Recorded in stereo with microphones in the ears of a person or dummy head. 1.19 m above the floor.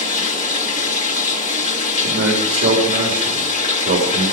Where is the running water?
35° left (ahead or behind), 1.2 m.